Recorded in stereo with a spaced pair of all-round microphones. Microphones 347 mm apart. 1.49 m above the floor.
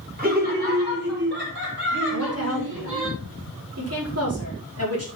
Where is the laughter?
25° right (ahead or behind), 6 m; by 3.1 s 40° right (ahead or behind), 6.5 m.